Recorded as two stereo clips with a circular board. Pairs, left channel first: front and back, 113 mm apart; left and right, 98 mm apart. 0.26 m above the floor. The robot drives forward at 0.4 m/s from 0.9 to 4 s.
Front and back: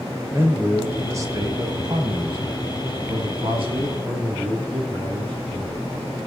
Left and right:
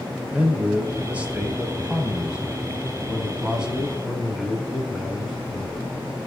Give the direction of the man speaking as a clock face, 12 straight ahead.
5 o'clock.